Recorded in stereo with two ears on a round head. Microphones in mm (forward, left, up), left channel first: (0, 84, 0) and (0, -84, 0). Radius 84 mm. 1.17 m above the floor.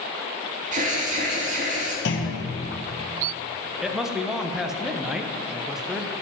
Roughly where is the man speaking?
Centre.